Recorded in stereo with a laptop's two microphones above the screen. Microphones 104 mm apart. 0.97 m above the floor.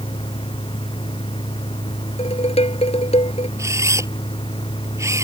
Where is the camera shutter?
30° right (ahead or behind).